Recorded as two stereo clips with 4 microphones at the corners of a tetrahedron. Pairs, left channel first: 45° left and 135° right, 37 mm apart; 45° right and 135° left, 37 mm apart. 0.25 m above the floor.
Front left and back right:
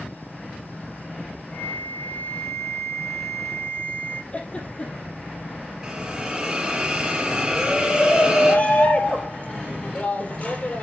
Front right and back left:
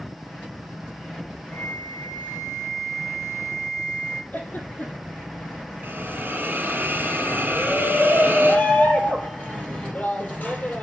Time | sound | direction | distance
1.5 | a flute | 20° left | 4.5 m
4.3 | a giggle | 5° right | 4.5 m
5.8 | a hiss | 160° left | 4 m
7.6 | a shout | straight ahead | 6 m